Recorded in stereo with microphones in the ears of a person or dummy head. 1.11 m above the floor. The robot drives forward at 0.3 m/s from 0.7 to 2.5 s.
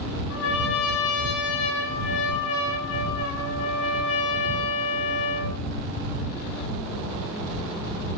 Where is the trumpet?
80° left, 6.5 m; by 5.6 s 75° left (ahead or behind), 7 m.